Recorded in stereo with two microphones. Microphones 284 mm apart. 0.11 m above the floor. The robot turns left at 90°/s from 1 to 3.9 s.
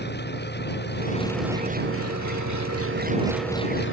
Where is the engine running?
35° left; by 3.9 s 135° left.